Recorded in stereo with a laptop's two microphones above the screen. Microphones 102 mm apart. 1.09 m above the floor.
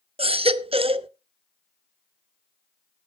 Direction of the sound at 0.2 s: 70° right (ahead or behind).